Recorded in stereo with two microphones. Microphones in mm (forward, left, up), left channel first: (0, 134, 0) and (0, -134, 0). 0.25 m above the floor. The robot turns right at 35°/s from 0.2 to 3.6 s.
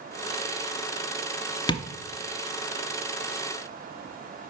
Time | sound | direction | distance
1.7 | tapping | 15° left (ahead or behind) | 0.5 m